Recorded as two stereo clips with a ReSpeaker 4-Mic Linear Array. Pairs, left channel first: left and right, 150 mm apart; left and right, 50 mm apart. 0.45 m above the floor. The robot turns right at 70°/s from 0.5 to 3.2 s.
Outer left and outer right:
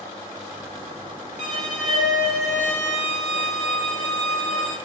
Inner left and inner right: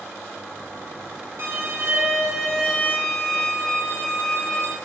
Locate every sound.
1.4 s a violin: 75° right, 1.6 m; by 4.8 s 50° left, 1.6 m